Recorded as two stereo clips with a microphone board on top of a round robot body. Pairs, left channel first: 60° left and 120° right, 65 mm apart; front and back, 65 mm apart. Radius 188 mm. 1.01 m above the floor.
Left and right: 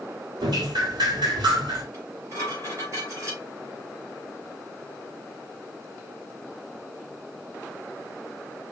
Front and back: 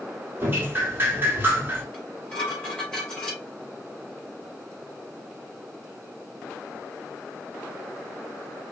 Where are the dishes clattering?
75° right, 3 m.